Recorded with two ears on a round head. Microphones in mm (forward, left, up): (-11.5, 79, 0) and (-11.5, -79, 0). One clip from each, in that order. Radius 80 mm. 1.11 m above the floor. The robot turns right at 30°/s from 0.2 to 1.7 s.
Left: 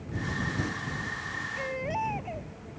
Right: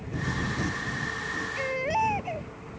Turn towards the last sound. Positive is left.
turn(degrees=-40)  # may be behind; listen again after turning